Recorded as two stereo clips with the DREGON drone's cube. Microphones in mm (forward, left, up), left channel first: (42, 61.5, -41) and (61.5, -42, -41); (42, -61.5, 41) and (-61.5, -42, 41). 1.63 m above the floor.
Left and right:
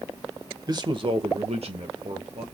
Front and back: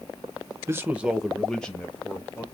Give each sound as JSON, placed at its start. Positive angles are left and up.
{"t": 0.7, "sound": "a man speaking", "azimuth_deg": -125, "distance_m": 0.5}